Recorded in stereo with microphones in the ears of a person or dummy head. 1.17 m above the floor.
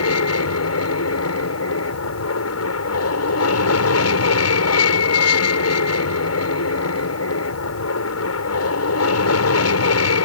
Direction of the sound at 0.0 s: 70° left (ahead or behind).